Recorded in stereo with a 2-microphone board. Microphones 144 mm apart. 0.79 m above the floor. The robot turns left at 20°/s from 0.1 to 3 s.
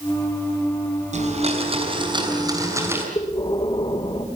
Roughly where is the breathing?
Left.